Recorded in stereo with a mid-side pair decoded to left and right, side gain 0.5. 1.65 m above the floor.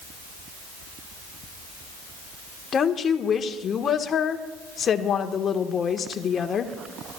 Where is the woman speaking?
45° left, 1.5 m.